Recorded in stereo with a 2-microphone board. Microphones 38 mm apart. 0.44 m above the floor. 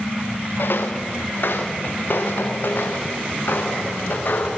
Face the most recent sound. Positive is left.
turn(degrees=55)  # may be behind; listen again after turning